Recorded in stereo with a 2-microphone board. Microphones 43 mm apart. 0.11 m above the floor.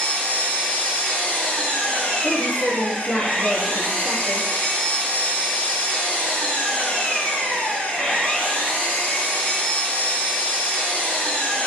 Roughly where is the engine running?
Left.